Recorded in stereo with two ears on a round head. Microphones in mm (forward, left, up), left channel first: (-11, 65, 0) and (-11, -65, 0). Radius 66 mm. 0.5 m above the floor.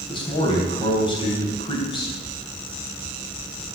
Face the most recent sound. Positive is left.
turn(degrees=35)  # may be behind; listen again after turning